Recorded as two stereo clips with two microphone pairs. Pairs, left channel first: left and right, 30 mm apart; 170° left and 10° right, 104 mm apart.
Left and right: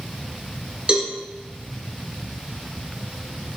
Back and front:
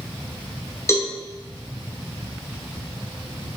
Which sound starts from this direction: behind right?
A cowbell, at 0.9 s.